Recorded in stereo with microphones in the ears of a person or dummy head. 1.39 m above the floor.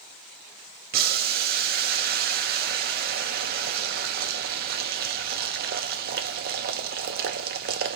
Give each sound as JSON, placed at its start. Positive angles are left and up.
{"t": 0.9, "sound": "boiling", "side_deg": -50, "distance_m": 0.6}